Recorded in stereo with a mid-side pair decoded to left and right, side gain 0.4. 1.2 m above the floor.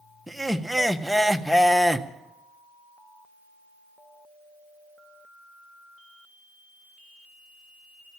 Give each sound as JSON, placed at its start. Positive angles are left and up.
{"t": 0.3, "sound": "laughter", "azimuth_deg": -5, "distance_m": 1.2}